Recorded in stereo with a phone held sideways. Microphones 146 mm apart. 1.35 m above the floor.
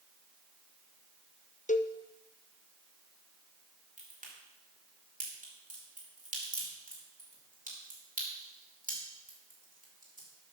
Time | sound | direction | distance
1.7 | a cowbell | 60° left (ahead or behind) | 0.5 m
4.0 | a crack | 65° right (ahead or behind) | 3.5 m